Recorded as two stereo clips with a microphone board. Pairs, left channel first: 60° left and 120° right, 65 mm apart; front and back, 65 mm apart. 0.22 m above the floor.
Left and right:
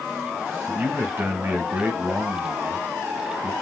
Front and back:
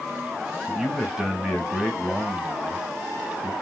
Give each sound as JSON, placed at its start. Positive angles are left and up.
{"t": 0.7, "sound": "a man speaking", "azimuth_deg": -105, "distance_m": 1.8}